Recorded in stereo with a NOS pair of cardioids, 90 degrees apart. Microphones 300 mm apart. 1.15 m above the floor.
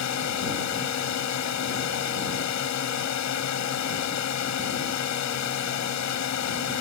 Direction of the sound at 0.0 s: 65° left.